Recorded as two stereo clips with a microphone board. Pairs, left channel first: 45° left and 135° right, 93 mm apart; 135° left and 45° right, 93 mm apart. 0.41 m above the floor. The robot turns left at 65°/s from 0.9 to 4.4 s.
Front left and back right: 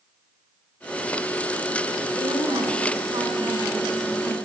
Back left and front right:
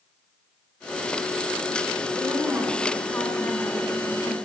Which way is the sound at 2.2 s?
100° right.